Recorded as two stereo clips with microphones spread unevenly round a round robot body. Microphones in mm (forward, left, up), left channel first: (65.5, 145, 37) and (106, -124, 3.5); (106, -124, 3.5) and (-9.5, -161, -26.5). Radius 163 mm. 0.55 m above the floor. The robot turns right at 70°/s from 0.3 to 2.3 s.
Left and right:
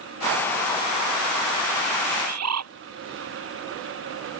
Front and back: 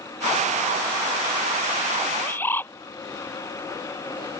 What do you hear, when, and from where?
2.1 s a bird: 65° right; by 2.7 s 55° right